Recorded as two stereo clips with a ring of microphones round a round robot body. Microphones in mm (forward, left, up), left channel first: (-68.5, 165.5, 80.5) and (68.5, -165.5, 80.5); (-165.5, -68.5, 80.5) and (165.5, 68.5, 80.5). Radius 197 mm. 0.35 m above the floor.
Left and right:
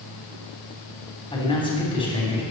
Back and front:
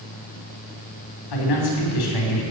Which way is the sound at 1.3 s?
170° right.